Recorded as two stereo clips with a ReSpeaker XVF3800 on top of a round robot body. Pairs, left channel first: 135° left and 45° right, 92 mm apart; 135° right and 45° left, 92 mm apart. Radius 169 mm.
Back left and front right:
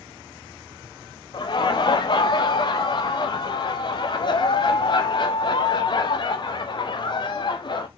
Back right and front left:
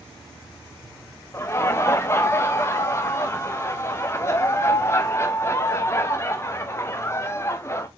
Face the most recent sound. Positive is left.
turn(degrees=165)